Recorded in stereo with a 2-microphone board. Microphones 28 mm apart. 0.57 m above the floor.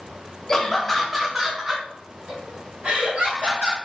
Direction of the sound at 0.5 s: 20° left (ahead or behind).